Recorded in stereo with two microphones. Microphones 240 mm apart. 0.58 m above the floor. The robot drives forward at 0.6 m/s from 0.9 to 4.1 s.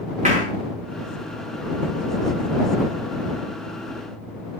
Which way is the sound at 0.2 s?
30° right (ahead or behind).